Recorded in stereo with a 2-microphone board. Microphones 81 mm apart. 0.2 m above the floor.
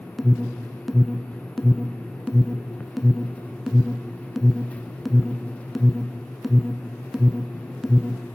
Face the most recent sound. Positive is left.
turn(degrees=0)  # may be behind; listen again after turning